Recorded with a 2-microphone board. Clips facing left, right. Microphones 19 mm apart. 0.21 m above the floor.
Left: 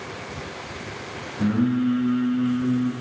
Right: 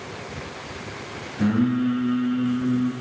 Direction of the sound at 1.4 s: 25° right (ahead or behind).